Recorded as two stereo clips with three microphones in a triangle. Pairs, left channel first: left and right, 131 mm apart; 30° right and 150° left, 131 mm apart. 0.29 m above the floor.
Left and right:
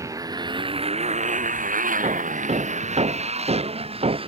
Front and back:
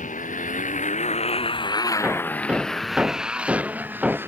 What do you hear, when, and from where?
0.0 s a motorcycle: 25° right; by 4.3 s 135° right
2.0 s hammering: 130° right